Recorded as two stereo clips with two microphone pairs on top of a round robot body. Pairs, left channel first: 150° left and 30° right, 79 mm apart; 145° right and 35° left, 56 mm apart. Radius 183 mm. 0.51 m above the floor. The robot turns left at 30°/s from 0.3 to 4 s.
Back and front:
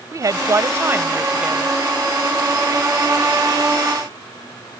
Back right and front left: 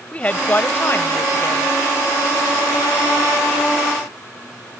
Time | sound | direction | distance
0.1 | a woman speaking | 75° right | ?